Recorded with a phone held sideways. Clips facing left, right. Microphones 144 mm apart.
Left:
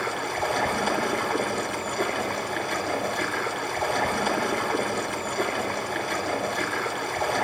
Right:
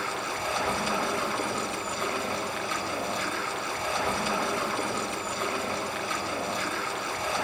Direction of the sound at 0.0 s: 60° left (ahead or behind).